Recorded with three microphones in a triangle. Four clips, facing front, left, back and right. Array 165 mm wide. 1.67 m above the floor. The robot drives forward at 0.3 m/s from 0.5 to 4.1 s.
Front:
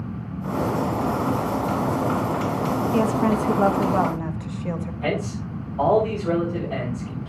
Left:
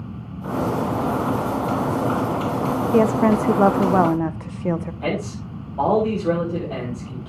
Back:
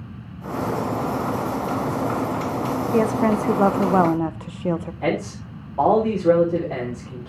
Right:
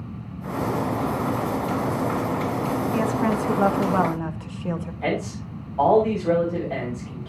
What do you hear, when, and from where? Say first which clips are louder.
2.9 s a woman speaking: left 8 dB, back 3 dB; 105° left, 0.7 m; by 4.9 s 135° left, 0.9 m
5.0 s a man speaking: left 1 dB, even; 160° left, 6.5 m